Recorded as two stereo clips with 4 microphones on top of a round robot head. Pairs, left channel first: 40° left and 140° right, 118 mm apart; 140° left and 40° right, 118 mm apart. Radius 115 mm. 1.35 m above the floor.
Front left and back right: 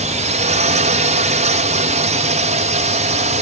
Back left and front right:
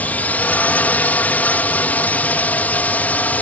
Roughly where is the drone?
Behind right.